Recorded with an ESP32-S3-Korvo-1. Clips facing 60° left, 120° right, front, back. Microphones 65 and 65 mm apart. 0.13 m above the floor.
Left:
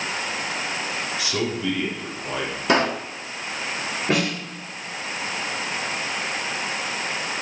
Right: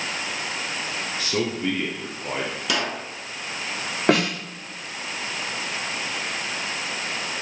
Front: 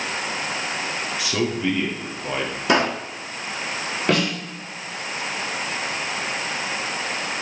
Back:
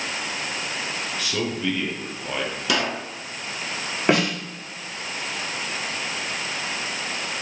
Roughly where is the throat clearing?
I don't hear throat clearing.